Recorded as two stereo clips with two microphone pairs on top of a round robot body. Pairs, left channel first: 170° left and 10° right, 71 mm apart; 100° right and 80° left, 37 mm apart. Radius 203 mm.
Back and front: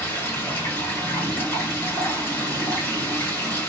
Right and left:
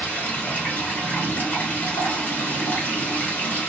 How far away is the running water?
About 2.0 m.